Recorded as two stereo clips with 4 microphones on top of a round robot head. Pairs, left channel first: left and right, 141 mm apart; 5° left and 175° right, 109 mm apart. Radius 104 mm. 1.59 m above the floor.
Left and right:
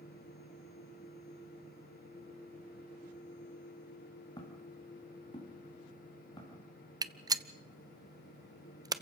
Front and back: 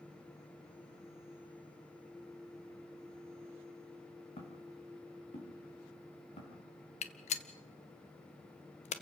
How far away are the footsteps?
About 5 m.